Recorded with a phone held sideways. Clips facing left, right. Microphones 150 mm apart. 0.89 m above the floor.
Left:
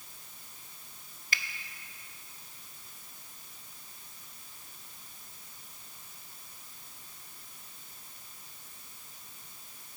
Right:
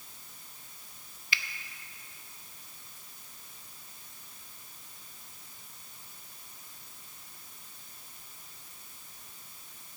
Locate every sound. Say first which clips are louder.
1.3 s a finger snap: even; 45° left (ahead or behind), 0.5 m